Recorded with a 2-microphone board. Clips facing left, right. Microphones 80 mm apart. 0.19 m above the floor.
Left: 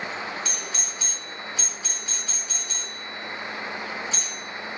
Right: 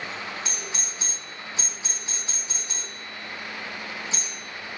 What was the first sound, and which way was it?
A doorbell, 25° right (ahead or behind).